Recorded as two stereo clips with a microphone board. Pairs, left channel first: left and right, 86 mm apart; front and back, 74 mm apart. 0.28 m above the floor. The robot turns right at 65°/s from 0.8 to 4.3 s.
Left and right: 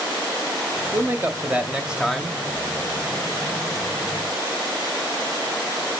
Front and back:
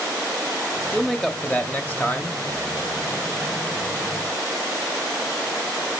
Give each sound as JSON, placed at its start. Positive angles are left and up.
{"t": 0.9, "sound": "a man speaking", "azimuth_deg": -85, "distance_m": 1.0}